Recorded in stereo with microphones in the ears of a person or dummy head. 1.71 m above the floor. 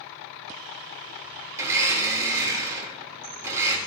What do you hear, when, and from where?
1.5 s a blender: 15° right (ahead or behind), 4 m